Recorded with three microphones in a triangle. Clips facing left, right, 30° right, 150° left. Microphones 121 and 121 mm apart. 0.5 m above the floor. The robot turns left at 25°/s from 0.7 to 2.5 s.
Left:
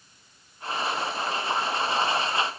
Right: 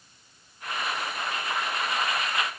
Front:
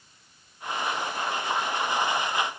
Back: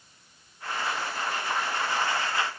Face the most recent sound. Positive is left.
No sound to turn to.